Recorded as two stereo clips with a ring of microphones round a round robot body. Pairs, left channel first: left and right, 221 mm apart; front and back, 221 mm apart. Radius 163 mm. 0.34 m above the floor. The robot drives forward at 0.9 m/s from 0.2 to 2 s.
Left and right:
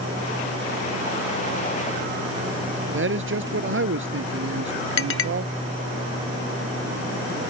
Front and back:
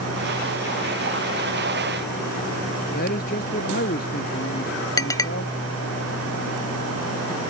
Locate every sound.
2.9 s a man speaking: 60° right
5.0 s a clink: 75° left